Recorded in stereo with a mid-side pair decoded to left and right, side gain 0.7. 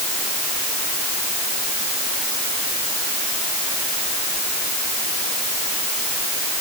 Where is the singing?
I don't hear singing.